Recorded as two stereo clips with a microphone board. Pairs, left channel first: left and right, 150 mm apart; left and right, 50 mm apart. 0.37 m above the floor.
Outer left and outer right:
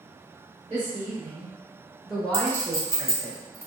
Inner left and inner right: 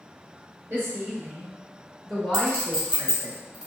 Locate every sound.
0.7 s a woman speaking: 40° right (ahead or behind), 1.2 m; by 3.3 s 30° left (ahead or behind), 1.3 m
2.3 s a clink: 15° right (ahead or behind), 1.6 m